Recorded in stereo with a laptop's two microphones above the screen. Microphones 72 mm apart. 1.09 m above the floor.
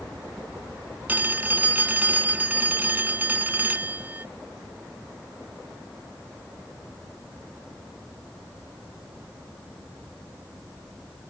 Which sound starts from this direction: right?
A phone ringing, at 1.1 s.